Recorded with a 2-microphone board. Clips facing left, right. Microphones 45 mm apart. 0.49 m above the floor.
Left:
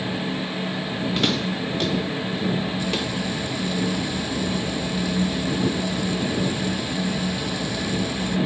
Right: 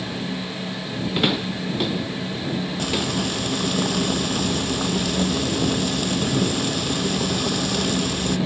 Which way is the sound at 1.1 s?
15° right (ahead or behind).